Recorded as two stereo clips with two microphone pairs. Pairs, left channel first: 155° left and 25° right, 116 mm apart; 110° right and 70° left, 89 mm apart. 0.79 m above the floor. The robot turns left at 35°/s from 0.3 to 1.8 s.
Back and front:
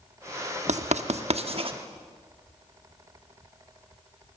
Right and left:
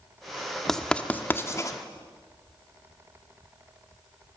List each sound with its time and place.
0.7 s writing: 25° right, 1.2 m; by 1.8 s 60° right, 1.2 m